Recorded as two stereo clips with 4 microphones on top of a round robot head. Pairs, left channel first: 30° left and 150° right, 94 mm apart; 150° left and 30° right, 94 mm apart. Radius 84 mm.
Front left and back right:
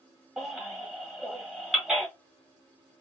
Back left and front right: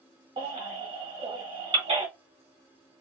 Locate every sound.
0.4 s a baby crying: 60° right, 1.7 m